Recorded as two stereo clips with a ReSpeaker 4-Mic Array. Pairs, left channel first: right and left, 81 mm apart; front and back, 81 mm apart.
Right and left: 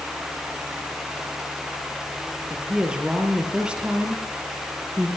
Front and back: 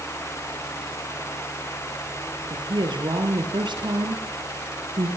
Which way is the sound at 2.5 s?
170° left.